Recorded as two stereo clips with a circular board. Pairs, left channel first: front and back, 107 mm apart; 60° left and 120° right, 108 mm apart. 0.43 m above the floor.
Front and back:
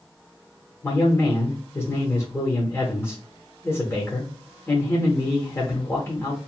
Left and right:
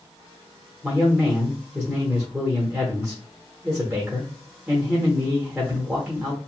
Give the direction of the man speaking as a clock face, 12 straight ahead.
2 o'clock.